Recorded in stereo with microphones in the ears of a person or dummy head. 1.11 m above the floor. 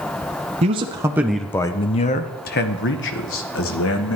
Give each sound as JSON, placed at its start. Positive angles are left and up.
{"t": 0.6, "sound": "a man speaking", "side_deg": -35, "distance_m": 0.8}